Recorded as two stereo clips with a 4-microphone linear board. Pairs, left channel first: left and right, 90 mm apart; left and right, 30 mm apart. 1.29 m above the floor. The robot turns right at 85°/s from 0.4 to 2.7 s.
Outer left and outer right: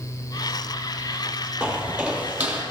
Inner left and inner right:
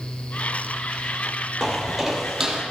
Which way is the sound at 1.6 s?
15° right (ahead or behind).